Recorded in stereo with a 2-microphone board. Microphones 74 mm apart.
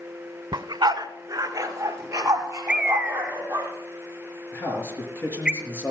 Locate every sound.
0.5 s a dog barking: 70° right (ahead or behind), 0.5 m; by 3.7 s 30° right (ahead or behind), 3.5 m
2.7 s a bird: 10° right (ahead or behind), 0.9 m
4.5 s a man speaking: 25° left (ahead or behind), 4.5 m